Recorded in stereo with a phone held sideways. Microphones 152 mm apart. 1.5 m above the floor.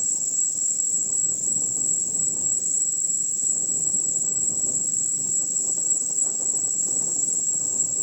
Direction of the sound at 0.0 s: 5° right (ahead or behind).